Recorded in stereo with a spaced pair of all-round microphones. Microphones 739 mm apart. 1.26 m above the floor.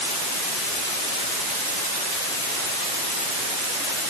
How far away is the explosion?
I don't hear an explosion.